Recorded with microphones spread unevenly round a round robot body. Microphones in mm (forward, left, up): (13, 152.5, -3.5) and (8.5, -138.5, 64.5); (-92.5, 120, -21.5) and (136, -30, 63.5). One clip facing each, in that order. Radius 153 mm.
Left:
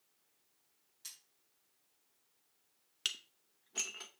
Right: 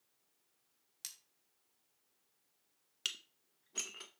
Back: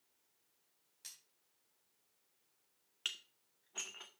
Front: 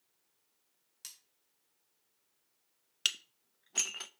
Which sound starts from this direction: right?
Cutlery clinking, at 1.0 s.